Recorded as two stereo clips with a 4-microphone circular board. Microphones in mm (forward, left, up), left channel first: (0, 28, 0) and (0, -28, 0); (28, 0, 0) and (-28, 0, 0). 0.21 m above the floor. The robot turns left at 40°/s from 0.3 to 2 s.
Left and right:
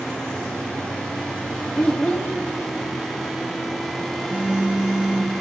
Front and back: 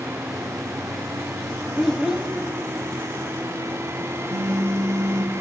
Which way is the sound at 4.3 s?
155° right.